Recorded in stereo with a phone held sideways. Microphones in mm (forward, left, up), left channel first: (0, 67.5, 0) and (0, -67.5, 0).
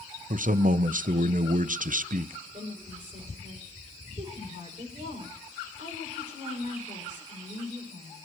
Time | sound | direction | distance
0.3 | a man speaking | 80° right | 0.6 m
2.5 | a woman speaking | 75° right (ahead or behind) | 5.5 m